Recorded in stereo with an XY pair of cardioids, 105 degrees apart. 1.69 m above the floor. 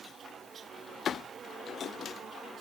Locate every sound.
Only background noise.